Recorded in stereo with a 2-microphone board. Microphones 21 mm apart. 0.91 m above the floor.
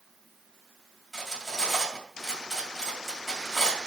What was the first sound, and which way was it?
Cutlery clinking, 10° left (ahead or behind).